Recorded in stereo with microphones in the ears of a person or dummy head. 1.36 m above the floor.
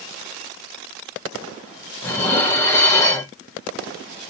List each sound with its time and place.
2.0 s dishes clattering: 15° left (ahead or behind), 0.5 m